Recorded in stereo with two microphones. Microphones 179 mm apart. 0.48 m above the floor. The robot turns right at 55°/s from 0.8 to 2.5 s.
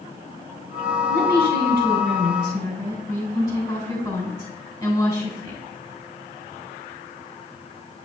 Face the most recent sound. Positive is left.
turn(degrees=160)